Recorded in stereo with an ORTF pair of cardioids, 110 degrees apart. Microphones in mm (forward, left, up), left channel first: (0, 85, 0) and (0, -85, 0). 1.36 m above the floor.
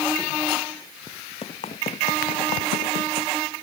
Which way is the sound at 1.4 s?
40° left.